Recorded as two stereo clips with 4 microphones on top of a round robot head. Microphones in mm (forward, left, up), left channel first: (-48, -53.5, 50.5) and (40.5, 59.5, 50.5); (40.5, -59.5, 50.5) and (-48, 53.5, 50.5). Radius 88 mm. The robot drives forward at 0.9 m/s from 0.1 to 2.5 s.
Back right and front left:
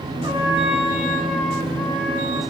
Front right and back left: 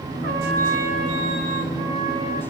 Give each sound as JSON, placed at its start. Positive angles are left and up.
{"t": 0.2, "sound": "a trumpet", "azimuth_deg": 115, "distance_m": 1.3}